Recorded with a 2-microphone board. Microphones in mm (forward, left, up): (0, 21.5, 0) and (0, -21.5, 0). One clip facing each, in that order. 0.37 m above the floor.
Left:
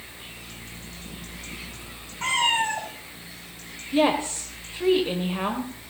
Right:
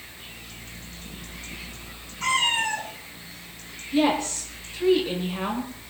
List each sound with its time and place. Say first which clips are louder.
2.2 s a cat meowing: even; 35° left (ahead or behind), 6 m
3.9 s a woman speaking: left 1 dB; 20° left (ahead or behind), 1.1 m